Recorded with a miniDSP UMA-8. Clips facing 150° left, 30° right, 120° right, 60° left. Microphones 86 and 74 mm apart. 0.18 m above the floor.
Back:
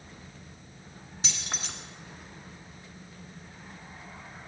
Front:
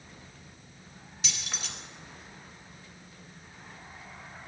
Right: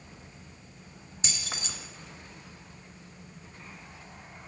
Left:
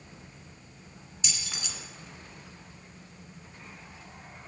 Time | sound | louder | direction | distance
1.2 | keys jangling | back 2 dB, right 2 dB | 165° right | 1.4 m